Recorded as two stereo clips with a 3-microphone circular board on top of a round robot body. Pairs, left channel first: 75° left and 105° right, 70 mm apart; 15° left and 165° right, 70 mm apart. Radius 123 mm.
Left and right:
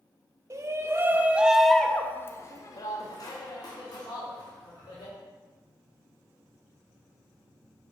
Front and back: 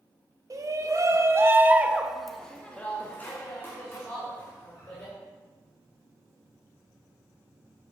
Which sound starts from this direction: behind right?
A shout, at 0.5 s.